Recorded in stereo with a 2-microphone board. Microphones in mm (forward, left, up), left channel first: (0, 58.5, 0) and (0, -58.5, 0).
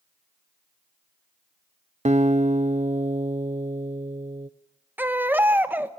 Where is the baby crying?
15° right (ahead or behind), 1.2 m.